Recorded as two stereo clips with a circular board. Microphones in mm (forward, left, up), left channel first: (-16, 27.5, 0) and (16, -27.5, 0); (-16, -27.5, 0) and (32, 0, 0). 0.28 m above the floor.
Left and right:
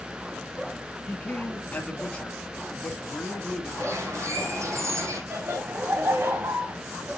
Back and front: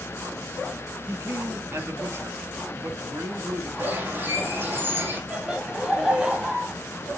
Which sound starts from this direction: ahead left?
A man speaking, at 1.1 s.